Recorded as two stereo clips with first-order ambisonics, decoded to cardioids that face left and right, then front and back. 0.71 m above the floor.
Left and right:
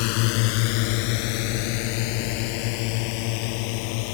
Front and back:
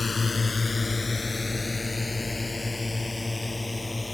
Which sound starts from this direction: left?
A drone, at 0.0 s.